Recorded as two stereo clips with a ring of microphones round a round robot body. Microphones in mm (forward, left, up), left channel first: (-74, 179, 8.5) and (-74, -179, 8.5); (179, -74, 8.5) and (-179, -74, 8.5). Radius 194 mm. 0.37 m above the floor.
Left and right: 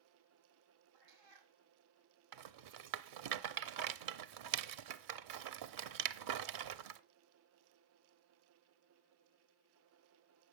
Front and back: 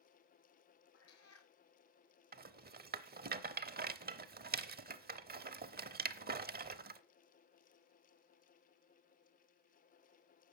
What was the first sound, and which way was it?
A cat meowing, 50° right.